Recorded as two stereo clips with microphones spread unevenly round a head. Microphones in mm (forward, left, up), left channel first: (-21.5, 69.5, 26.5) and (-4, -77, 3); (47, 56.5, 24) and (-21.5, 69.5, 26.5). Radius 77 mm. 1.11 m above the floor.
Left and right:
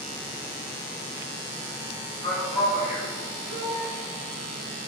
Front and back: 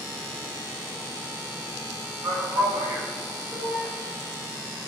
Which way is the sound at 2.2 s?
165° left.